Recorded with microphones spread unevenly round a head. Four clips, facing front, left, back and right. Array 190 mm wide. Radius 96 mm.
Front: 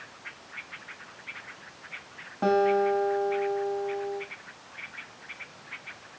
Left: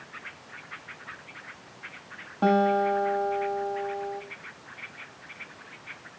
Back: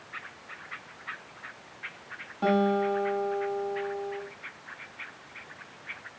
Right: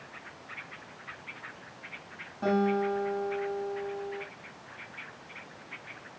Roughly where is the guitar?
Left.